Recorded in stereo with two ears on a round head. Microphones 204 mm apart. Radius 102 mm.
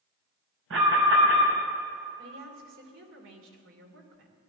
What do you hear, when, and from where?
0.7 s an alarm: 60° right (ahead or behind), 5.5 m
2.2 s a woman speaking: 60° right (ahead or behind), 3 m